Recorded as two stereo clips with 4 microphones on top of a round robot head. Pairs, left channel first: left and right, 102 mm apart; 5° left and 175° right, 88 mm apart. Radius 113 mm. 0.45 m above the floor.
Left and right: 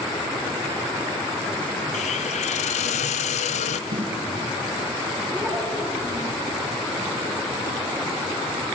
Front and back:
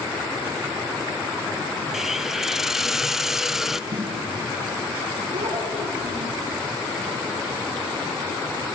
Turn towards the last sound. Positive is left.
turn(degrees=-170)